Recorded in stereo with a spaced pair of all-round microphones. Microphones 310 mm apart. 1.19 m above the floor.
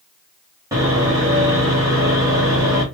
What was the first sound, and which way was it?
Sawing, 10° right (ahead or behind).